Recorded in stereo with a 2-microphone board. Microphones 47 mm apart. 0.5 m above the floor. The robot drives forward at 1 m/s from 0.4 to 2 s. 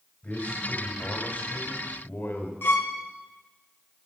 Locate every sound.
0.2 s a man speaking: 35° left (ahead or behind), 3.5 m; by 2.5 s 50° left (ahead or behind), 2.5 m
2.6 s a violin: 50° left (ahead or behind), 0.9 m